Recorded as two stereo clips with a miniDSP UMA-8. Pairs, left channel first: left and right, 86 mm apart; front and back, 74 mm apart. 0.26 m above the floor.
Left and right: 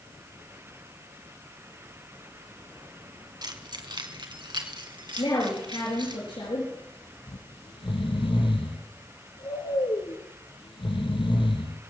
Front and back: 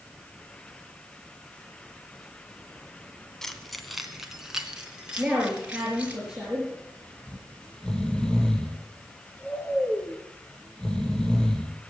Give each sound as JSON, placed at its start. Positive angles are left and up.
{"t": 3.4, "sound": "keys jangling", "azimuth_deg": -85, "distance_m": 1.7}
{"t": 5.2, "sound": "a woman speaking", "azimuth_deg": 100, "distance_m": 5.0}
{"t": 7.3, "sound": "snoring", "azimuth_deg": 80, "distance_m": 2.5}